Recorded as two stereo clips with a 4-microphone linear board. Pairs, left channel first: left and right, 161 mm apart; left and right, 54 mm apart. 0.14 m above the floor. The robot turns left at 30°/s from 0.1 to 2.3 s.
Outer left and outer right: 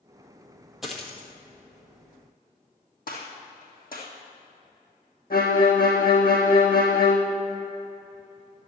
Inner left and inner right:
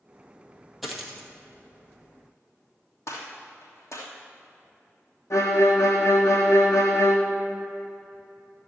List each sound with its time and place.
0.8 s a dropped coin: centre (ahead or behind), 1.6 m; by 1.3 s 10° left (ahead or behind), 1.6 m
3.1 s a gunshot: 65° left (ahead or behind), 2.5 m
5.3 s a violin: 65° left (ahead or behind), 1.9 m